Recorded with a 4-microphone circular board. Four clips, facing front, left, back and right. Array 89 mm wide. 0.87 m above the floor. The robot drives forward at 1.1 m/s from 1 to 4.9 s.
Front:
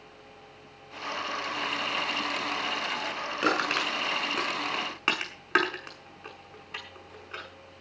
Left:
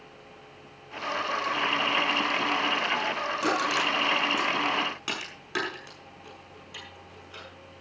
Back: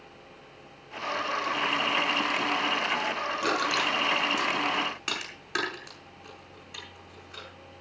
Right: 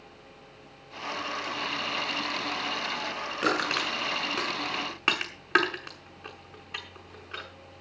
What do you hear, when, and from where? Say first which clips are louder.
3.4 s crushing: even, front 1 dB; 35° right, 6.5 m; by 7.5 s 50° right, 5.5 m